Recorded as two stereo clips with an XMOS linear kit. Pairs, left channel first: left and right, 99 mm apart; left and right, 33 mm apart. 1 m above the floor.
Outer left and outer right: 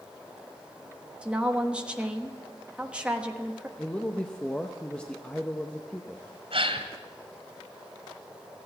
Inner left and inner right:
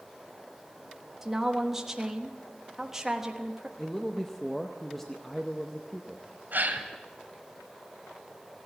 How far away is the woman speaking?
About 1.1 m.